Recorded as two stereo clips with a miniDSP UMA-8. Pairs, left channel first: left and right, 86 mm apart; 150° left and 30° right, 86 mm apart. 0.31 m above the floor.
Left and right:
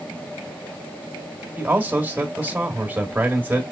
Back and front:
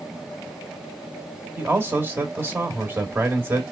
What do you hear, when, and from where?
1.6 s a man speaking: 55° right, 0.9 m